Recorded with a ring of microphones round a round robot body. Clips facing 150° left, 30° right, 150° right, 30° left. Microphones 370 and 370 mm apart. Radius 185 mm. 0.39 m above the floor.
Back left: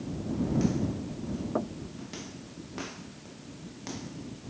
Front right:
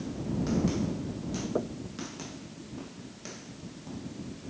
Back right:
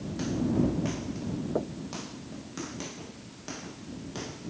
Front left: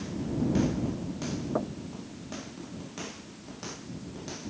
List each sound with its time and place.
1.6 s knocking: 85° left